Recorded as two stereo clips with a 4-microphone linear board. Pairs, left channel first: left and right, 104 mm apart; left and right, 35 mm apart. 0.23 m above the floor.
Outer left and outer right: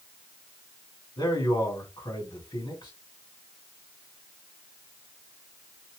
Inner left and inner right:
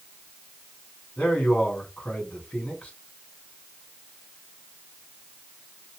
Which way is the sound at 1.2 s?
45° left (ahead or behind).